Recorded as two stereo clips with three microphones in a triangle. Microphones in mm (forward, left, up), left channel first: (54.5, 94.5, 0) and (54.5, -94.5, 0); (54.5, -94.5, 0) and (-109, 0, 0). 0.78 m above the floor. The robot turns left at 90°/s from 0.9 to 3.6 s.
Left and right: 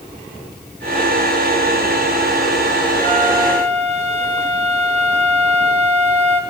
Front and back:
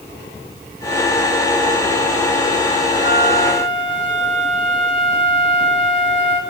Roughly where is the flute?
Ahead.